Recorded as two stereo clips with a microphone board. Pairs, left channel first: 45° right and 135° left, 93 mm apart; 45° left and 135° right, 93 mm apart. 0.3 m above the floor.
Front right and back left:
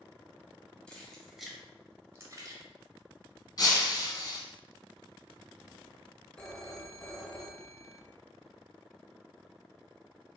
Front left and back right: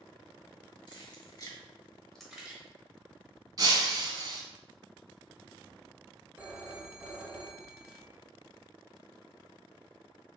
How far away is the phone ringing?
About 0.7 m.